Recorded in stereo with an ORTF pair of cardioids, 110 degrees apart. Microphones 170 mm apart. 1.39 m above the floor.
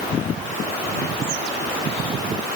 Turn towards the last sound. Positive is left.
No sound to turn to.